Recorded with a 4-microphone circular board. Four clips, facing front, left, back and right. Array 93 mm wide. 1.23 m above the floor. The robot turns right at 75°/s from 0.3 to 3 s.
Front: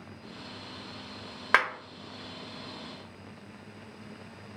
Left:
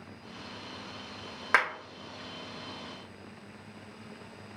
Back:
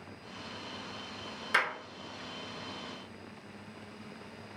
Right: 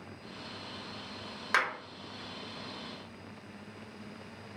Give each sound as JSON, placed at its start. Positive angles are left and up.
{"t": 1.5, "sound": "a clap", "azimuth_deg": 25, "distance_m": 1.2}